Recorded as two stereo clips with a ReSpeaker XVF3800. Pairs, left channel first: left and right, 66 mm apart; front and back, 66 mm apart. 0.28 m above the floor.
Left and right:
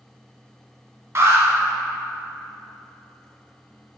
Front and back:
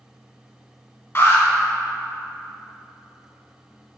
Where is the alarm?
50° right, 1.5 m.